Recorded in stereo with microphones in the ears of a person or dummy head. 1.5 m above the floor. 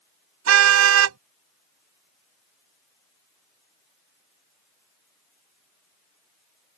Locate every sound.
0.5 s a car horn: 85° right